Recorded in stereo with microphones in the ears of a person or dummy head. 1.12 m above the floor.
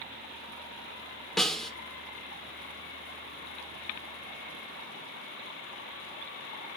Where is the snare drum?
5° left (ahead or behind), 1.5 m.